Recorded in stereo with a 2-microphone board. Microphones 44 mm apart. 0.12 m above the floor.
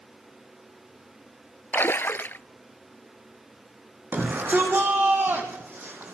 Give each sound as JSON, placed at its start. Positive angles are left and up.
{"t": 1.7, "sound": "a splash", "side_deg": 55, "distance_m": 0.5}
{"t": 4.1, "sound": "a shout", "side_deg": -55, "distance_m": 6.5}